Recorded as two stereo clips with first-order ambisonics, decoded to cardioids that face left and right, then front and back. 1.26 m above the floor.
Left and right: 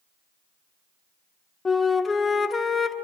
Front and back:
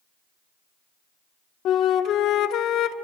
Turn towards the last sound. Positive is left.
turn(degrees=20)